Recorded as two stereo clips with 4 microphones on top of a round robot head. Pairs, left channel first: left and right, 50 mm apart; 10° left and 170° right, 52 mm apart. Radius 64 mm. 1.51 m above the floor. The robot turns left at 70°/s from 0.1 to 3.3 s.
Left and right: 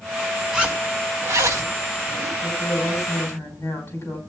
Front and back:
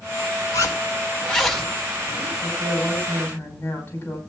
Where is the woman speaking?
125° left, 5.5 m; by 4.2 s 60° left, 5.5 m.